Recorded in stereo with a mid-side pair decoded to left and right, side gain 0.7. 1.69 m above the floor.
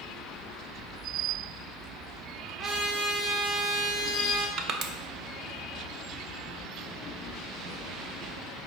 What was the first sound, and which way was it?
A trumpet, 45° right.